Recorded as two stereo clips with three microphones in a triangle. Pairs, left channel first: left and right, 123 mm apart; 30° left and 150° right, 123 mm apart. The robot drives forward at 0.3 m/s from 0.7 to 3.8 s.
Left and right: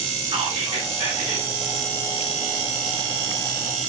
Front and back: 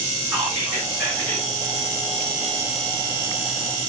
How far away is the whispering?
About 1.6 m.